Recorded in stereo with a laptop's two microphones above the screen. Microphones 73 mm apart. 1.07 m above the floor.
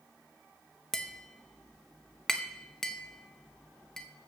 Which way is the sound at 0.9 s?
5° left (ahead or behind).